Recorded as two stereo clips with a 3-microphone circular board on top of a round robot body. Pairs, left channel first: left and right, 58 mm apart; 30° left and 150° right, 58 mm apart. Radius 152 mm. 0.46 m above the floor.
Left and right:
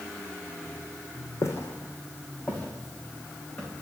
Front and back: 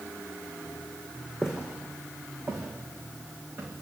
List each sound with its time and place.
1.4 s footsteps: 125° left, 1.5 m; by 3.8 s 165° left, 4.5 m